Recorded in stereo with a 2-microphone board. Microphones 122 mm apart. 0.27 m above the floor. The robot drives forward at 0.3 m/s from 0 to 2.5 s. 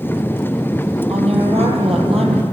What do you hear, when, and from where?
1.1 s a woman speaking: 60° right (ahead or behind), 6.5 m